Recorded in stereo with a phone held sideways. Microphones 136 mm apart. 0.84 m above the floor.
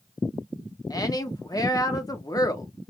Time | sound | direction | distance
0.9 | a woman speaking | 25° left (ahead or behind) | 0.8 m